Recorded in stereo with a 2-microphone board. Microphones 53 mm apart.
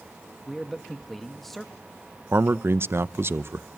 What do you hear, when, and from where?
0.5 s a man speaking: 5° left (ahead or behind), 1.1 m
2.3 s a man speaking: 50° right (ahead or behind), 0.7 m